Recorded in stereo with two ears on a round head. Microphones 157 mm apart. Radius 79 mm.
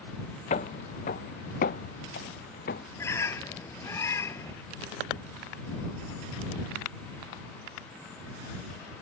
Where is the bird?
15° left (ahead or behind).